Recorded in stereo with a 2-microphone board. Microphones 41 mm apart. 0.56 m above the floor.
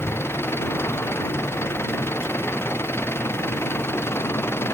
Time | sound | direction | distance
0.0 | an engine running | 90° left | ?